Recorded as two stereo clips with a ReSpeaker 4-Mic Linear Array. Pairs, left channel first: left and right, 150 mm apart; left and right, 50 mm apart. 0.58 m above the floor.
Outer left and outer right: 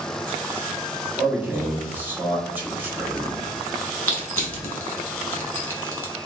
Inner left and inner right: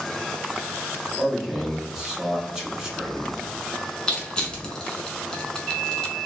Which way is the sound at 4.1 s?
10° left (ahead or behind).